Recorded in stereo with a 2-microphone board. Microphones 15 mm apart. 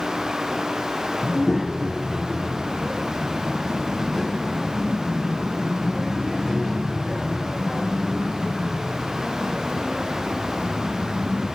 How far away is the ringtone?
I don't hear a ringtone.